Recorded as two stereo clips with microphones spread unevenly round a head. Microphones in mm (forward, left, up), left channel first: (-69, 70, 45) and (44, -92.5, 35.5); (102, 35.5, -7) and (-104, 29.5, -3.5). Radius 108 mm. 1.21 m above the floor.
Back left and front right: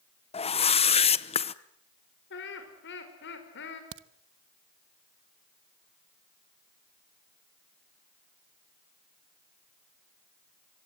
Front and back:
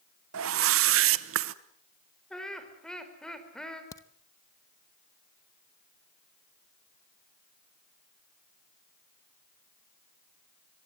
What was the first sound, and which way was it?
A whoosh, 175° right.